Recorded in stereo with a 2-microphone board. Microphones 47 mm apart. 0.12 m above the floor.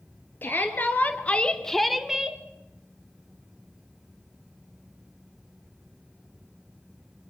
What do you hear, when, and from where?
0.4 s a shout: 45° left (ahead or behind), 2 m; by 2.4 s 20° right (ahead or behind), 1.6 m